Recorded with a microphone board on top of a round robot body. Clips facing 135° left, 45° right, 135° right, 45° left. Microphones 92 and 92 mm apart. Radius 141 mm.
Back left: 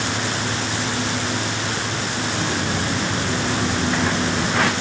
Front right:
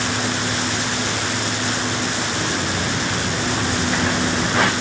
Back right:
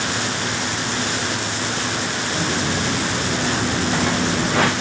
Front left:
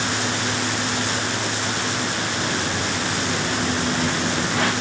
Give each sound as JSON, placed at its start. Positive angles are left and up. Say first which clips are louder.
{"t": 2.3, "sound": "footsteps", "louder": "even, back right 2 dB", "azimuth_deg": -150, "distance_m": 4.0}